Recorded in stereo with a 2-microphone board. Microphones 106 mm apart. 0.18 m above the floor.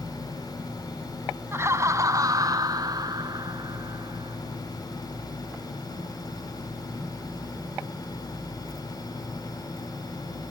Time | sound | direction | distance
1.5 | laughter | 25° right (ahead or behind) | 1.2 m